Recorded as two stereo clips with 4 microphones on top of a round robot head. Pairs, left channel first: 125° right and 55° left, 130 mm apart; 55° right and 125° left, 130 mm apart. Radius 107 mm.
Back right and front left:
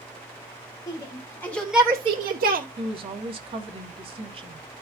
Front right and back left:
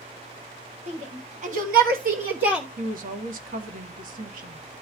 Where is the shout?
170° left, 2 m; by 2.7 s 50° left, 1.2 m.